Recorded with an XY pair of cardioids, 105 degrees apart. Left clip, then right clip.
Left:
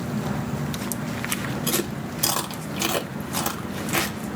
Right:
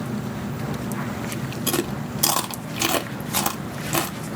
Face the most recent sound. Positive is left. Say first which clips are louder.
# right 4 dB
turn(degrees=-30)